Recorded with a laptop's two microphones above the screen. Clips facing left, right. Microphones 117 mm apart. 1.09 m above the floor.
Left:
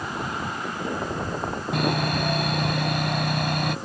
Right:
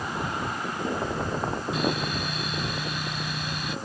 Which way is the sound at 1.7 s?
60° left (ahead or behind).